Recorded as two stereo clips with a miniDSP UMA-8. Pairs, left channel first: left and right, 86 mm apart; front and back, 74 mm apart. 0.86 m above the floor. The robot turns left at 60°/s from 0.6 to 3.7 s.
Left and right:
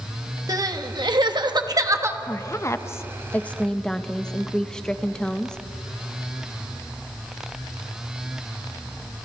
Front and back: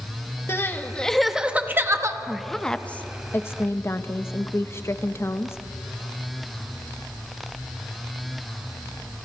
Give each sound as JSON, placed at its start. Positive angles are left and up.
{"t": 0.5, "sound": "crying", "azimuth_deg": -50, "distance_m": 1.2}
{"t": 2.2, "sound": "a woman speaking", "azimuth_deg": 100, "distance_m": 0.9}